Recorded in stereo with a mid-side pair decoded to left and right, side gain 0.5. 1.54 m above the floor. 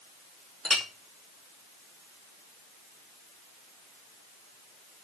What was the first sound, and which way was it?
A clink, 5° left.